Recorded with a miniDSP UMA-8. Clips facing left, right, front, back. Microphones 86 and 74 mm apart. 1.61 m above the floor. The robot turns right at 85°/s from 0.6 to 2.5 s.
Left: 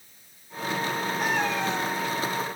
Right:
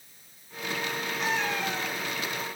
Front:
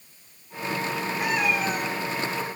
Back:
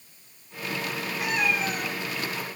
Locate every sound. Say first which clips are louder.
1.2 s a cat meowing: left 2 dB, front 1 dB; 45° left, 7.5 m; by 2.0 s 110° left, 7.5 m